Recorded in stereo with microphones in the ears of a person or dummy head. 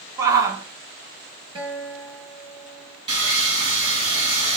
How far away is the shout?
About 3 m.